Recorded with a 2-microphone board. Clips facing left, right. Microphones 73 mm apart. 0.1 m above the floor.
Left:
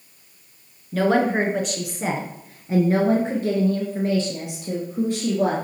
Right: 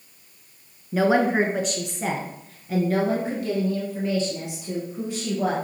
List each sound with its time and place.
0.9 s a woman speaking: 15° right (ahead or behind), 1.1 m; by 5.5 s 45° left (ahead or behind), 2.5 m